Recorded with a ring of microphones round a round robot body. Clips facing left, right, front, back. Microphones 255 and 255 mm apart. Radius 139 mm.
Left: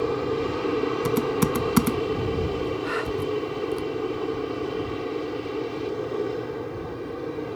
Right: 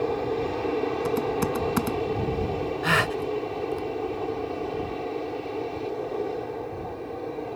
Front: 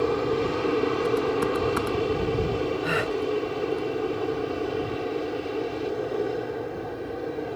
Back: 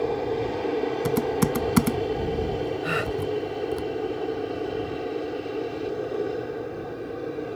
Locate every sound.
0.0 s an aircraft: 50° left; by 7.6 s 100° left
1.1 s typing on a keyboard: 150° left
2.8 s a gasp: 95° right